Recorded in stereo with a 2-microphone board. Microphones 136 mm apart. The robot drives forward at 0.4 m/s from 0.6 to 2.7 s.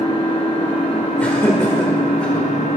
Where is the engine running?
50° left (ahead or behind), 1.9 m; by 2.8 s 75° left (ahead or behind), 1.5 m.